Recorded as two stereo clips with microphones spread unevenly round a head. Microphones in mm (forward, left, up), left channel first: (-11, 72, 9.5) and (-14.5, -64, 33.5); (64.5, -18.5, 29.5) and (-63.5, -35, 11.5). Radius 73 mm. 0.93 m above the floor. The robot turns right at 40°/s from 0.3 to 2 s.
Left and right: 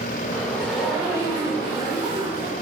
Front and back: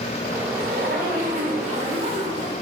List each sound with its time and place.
0.5 s a zipper: 170° left, 2 m; by 2.5 s 130° right, 2 m